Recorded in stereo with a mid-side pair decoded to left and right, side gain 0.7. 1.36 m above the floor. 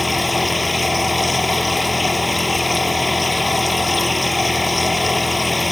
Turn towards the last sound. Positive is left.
turn(degrees=10)